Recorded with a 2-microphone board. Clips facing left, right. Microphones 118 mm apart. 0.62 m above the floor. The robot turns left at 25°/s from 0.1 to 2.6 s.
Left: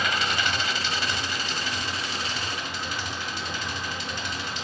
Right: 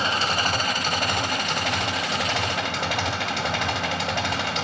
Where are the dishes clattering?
No dishes clattering in this recording.